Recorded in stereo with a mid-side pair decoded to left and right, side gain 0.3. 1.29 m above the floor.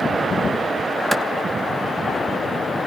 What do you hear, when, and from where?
1.1 s a clap: 10° right, 2 m